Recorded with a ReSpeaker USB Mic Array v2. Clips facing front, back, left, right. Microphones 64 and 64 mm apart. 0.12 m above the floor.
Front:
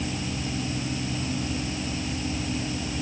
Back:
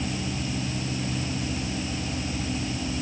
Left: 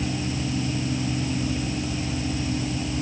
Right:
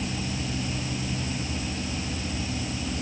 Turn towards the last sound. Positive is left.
No sound to turn to.